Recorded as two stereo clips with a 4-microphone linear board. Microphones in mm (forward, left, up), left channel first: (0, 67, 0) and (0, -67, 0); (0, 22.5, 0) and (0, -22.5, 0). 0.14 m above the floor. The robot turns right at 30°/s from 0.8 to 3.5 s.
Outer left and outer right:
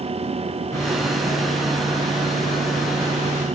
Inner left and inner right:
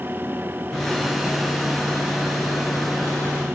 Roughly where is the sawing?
Ahead.